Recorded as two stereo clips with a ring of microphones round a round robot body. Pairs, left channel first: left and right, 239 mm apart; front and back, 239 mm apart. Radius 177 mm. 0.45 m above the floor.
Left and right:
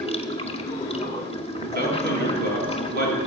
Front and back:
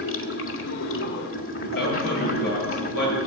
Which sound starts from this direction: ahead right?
A man speaking, at 1.6 s.